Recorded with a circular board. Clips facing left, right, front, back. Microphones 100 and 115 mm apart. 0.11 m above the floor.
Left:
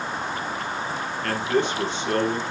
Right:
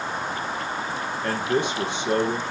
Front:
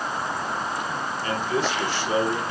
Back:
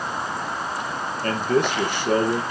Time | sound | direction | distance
1.2 | a man speaking | 160° right | 2 m